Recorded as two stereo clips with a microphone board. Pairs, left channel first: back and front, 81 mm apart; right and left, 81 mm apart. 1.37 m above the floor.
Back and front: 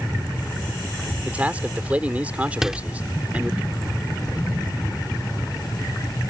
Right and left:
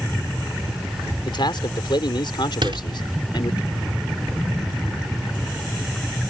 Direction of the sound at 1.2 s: 70° right.